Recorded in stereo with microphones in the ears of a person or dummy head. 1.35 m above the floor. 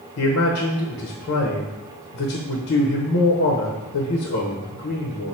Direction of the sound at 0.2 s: 60° left (ahead or behind).